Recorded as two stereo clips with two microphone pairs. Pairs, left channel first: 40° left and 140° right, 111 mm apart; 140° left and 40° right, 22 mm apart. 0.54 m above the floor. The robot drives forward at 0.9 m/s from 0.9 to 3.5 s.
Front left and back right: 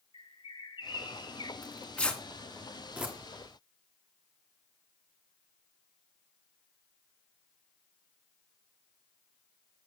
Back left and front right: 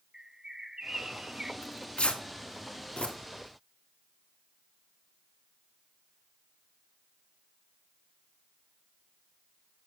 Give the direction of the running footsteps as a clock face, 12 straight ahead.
I don't hear running footsteps.